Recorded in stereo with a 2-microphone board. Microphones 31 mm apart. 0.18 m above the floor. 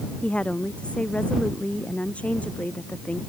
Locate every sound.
0.2 s a woman speaking: 40° left (ahead or behind); by 3.2 s 50° left (ahead or behind)